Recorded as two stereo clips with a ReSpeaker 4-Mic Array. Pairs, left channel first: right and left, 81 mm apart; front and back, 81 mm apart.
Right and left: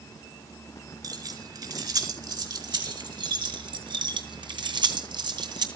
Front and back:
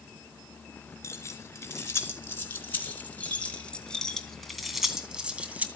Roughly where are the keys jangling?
Ahead left.